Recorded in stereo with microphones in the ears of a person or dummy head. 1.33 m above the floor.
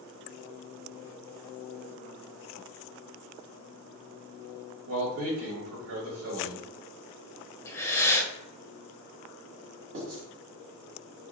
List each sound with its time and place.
4.9 s a man speaking: 60° right (ahead or behind), 1.4 m
7.7 s breathing: 10° left (ahead or behind), 0.6 m
9.9 s writing: 65° right (ahead or behind), 1.2 m